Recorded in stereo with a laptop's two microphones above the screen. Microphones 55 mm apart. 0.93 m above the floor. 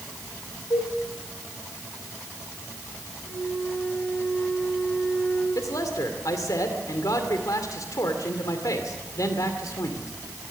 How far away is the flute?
About 8 m.